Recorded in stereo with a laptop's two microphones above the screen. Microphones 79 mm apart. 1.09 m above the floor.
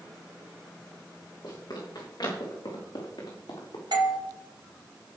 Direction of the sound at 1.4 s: 55° left (ahead or behind).